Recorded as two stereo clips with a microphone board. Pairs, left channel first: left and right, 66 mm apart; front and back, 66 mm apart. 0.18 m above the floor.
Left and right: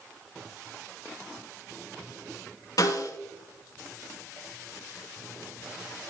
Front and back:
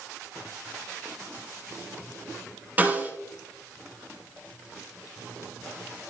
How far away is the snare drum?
About 3 m.